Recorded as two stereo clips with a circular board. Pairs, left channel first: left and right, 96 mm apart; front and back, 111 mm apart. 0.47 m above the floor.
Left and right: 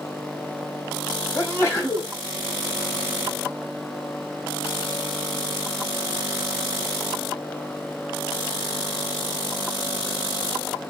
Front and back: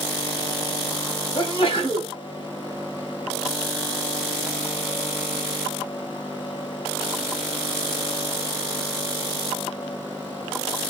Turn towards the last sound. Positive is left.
turn(degrees=30)